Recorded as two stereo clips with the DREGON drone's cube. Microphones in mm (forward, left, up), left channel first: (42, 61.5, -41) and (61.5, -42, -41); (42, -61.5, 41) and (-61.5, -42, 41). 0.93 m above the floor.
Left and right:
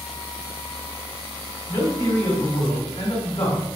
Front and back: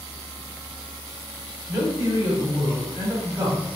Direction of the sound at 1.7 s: 105° left.